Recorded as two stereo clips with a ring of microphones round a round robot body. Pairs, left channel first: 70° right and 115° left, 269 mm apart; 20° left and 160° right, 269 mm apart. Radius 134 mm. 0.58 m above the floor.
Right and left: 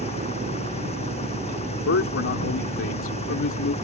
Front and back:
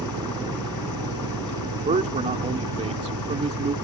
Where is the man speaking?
95° right.